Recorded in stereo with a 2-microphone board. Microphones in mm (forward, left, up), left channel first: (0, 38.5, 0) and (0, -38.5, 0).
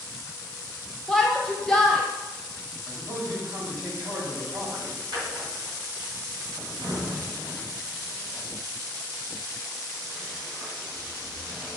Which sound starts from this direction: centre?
A shout, at 1.1 s.